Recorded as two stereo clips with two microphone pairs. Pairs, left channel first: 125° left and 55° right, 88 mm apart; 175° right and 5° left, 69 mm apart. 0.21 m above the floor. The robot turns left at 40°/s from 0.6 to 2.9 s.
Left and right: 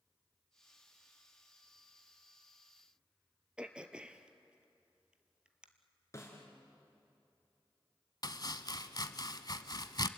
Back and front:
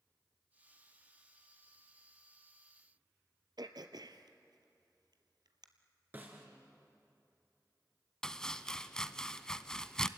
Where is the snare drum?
70° left, 3 m.